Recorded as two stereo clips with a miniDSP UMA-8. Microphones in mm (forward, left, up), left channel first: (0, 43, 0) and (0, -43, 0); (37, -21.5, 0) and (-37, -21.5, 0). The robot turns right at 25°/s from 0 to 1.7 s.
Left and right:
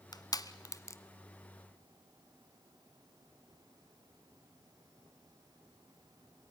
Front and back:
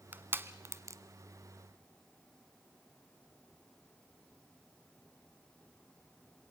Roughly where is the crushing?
Behind left.